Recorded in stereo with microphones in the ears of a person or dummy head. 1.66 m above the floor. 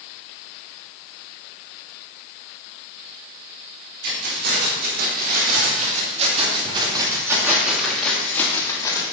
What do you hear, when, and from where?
4.0 s keys jangling: 70° right (ahead or behind), 3.5 m; by 9.0 s 20° left (ahead or behind), 3 m